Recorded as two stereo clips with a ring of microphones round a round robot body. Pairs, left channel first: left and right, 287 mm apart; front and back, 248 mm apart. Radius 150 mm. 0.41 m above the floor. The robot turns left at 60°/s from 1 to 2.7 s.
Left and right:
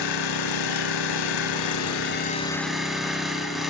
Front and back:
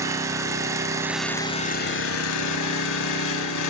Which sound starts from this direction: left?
An engine running, at 0.0 s.